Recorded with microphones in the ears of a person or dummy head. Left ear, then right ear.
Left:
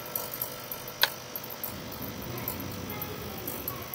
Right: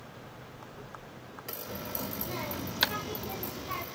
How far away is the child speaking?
About 2 m.